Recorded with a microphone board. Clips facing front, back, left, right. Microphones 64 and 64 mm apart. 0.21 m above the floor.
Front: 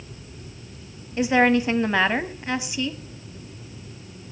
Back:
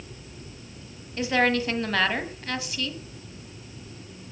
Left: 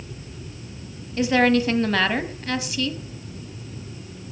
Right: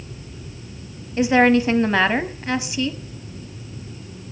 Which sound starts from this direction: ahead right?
A woman speaking, at 1.2 s.